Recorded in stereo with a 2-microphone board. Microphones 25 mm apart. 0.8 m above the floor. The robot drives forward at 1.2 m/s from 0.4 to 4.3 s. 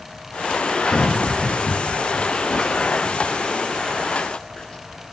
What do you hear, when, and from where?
0.9 s running footsteps: 55° left (ahead or behind), 1.4 m; by 4.8 s 45° left (ahead or behind), 7.5 m